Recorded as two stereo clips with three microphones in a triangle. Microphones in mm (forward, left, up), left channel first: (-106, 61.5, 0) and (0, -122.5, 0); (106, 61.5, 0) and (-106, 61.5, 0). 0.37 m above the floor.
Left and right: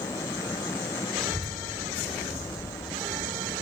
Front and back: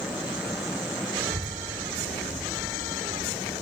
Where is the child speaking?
150° right, 2 m.